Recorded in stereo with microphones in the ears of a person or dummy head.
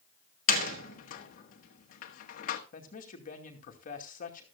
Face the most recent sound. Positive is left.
turn(degrees=45)  # may be behind; listen again after turning